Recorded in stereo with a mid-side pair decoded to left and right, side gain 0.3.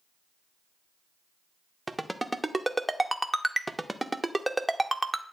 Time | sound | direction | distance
1.9 | a ringtone | 10° right | 0.8 m